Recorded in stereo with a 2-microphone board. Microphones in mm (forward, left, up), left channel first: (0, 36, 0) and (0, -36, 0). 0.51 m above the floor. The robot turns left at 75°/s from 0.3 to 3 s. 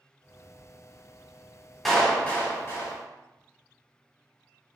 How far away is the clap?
About 1.3 m.